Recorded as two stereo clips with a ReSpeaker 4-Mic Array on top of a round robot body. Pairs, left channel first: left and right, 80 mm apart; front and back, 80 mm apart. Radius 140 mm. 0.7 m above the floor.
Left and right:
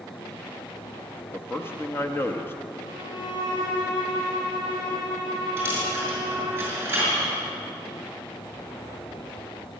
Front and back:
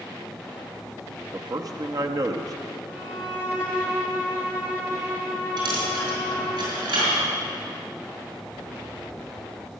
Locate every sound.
1.3 s a man speaking: 150° left, 0.9 m
2.9 s a violin: 110° left, 4.5 m
5.6 s a dropped coin: 160° right, 5 m